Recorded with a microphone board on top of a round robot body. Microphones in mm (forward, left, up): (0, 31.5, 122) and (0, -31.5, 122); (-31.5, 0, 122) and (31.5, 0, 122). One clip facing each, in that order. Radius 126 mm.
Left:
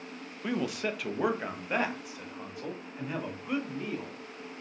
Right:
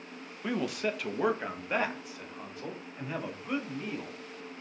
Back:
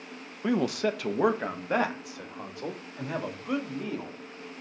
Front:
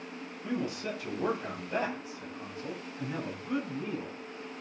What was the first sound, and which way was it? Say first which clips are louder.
A man speaking: even, back 8 dB; straight behind.